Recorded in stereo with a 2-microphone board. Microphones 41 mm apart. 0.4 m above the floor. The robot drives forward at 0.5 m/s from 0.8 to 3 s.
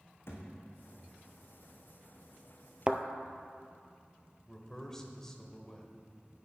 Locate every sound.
0.3 s a thud: 70° left (ahead or behind), 2.5 m
2.9 s a thud: 25° right (ahead or behind), 0.6 m
4.5 s a man speaking: 10° left (ahead or behind), 1.3 m